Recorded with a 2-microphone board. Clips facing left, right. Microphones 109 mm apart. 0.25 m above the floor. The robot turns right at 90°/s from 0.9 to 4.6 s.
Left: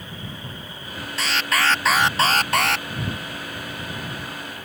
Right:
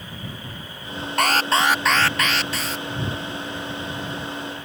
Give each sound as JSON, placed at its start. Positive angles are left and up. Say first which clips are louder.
{"t": 1.2, "sound": "an alarm", "louder": "right 4 dB", "azimuth_deg": -60}